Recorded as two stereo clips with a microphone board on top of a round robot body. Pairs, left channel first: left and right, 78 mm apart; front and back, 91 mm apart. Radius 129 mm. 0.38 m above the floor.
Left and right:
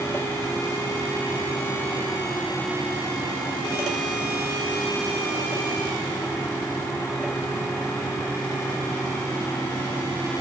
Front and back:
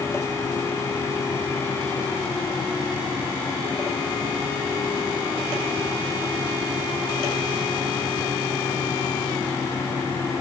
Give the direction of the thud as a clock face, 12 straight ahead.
I don't hear a thud.